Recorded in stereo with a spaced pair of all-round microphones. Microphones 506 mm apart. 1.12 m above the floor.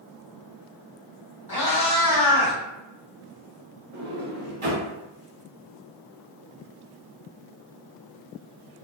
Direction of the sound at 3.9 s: 70° right (ahead or behind).